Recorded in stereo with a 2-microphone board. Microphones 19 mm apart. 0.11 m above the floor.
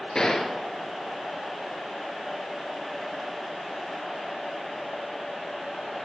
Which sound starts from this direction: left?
A gunshot, at 0.1 s.